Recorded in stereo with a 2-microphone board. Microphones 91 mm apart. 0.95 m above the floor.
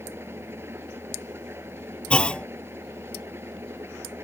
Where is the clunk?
10° left (ahead or behind).